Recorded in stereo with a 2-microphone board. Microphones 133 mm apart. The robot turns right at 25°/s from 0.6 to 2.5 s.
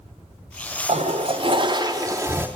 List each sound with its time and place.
0.9 s a toilet flushing: 55° right, 0.5 m; by 2.5 s 15° right, 0.5 m